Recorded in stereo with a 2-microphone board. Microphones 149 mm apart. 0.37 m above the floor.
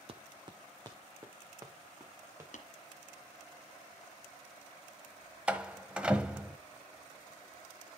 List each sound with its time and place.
0.1 s running footsteps: 45° right (ahead or behind), 0.8 m; by 2.4 s 20° right (ahead or behind), 3.5 m
2.5 s tapping: 70° left (ahead or behind), 1.9 m
5.5 s a door slam: 10° right (ahead or behind), 1.0 m